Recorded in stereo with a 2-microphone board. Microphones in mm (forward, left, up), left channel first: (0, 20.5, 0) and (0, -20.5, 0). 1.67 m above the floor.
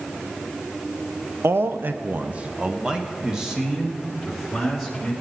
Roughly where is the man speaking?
Right.